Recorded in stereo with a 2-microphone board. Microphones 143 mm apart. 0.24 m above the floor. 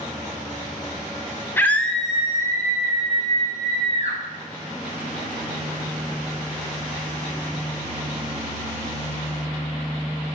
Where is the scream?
15° left (ahead or behind), 1.3 m; by 4.2 s 45° right (ahead or behind), 2.5 m.